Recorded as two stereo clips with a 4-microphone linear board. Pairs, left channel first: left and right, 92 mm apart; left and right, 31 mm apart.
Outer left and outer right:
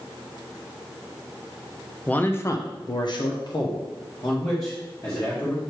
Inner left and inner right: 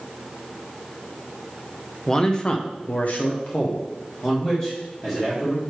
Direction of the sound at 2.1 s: 15° left (ahead or behind).